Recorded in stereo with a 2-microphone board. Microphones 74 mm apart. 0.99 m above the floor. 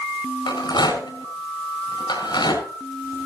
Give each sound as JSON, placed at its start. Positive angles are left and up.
{"t": 0.5, "sound": "a rattle", "side_deg": 75, "distance_m": 5.5}